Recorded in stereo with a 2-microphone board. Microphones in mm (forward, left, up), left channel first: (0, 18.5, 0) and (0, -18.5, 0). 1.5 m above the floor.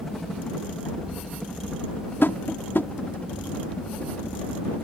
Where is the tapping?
75° left (ahead or behind).